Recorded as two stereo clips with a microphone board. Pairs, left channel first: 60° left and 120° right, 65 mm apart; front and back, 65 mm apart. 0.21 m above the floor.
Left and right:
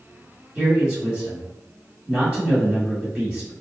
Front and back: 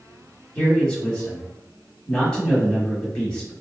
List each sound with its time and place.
0.6 s a man speaking: 60° right, 1.0 m